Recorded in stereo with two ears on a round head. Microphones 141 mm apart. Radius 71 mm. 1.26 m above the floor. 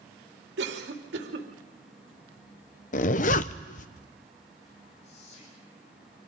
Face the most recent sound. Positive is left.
turn(degrees=45)  # may be behind; listen again after turning